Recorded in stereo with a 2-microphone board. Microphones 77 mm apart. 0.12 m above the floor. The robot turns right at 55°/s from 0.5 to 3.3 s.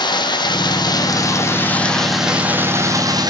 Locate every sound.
0.0 s running water: 90° left, 1.3 m; by 3.3 s 115° right, 1.3 m